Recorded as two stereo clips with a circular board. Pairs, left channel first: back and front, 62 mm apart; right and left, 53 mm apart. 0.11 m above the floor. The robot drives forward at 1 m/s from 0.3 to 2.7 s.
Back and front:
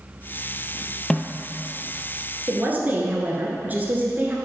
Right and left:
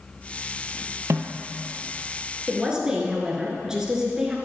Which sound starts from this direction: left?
A snare drum, at 1.1 s.